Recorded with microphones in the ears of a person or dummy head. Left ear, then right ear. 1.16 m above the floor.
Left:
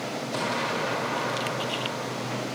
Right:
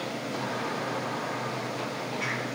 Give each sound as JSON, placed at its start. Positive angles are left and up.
{"t": 0.3, "sound": "an explosion", "side_deg": 70, "distance_m": 1.6}